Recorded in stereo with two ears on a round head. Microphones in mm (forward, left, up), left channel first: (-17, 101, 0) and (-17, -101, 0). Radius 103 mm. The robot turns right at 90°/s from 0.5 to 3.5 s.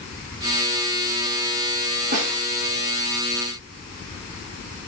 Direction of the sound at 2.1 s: 40° right (ahead or behind).